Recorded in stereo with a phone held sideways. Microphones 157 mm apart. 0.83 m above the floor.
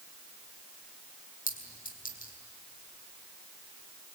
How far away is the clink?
About 4 m.